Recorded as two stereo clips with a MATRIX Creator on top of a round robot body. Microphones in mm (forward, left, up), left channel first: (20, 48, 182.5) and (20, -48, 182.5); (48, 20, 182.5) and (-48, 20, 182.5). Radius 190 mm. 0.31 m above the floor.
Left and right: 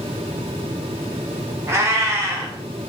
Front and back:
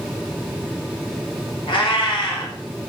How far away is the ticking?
No ticking in this recording.